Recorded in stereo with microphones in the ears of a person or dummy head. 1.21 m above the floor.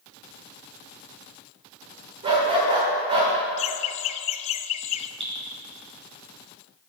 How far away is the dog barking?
About 1.3 m.